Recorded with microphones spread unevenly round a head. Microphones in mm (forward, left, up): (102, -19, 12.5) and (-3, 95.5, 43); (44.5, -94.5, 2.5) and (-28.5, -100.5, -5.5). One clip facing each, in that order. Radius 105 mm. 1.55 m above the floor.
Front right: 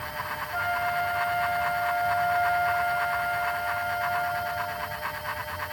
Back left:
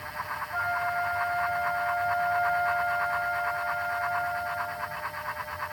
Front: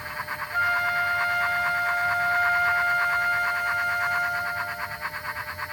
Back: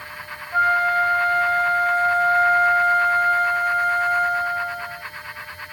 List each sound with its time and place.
0.5 s a flute: 120° right